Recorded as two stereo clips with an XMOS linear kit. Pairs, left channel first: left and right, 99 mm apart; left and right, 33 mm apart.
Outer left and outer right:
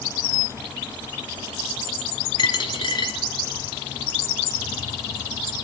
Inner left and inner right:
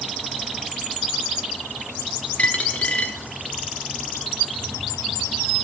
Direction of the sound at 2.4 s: 50° left (ahead or behind).